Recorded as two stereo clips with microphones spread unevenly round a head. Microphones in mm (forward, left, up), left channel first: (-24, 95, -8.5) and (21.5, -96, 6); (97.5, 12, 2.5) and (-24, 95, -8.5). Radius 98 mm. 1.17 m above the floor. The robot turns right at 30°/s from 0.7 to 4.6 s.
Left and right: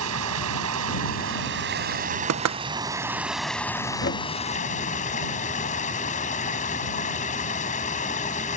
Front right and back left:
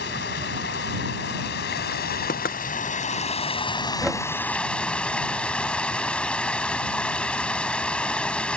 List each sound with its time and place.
0.0 s running water: 70° right; by 8.6 s 50° left
2.3 s knocking: 85° right; by 2.6 s 80° right
4.0 s knocking: 55° left; by 4.3 s 60° left